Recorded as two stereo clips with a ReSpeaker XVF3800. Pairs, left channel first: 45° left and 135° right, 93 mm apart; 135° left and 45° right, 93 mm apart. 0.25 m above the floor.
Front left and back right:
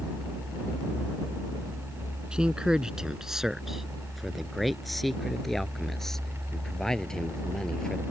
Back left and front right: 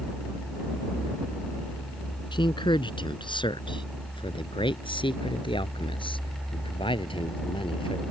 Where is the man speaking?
145° left; by 8.0 s 125° left.